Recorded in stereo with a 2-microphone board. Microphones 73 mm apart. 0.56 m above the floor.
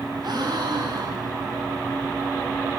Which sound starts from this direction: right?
A gasp, at 0.2 s.